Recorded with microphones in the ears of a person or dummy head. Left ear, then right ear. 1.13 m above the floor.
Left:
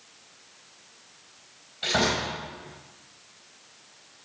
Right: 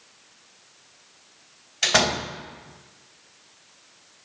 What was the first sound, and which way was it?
A door slam, 70° right (ahead or behind).